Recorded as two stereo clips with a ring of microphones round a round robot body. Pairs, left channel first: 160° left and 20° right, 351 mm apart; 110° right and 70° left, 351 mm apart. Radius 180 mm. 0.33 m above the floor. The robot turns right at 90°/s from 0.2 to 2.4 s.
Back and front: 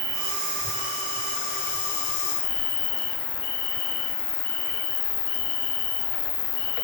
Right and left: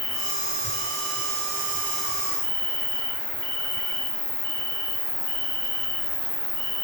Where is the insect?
35° right, 4.5 m; by 6.8 s 160° left, 4.5 m.